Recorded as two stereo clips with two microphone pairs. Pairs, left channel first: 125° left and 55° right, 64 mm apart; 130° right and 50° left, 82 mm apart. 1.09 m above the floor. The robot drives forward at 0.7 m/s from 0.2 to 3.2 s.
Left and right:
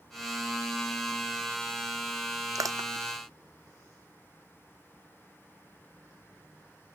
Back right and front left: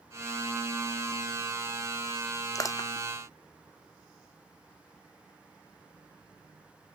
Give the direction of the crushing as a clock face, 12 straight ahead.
3 o'clock.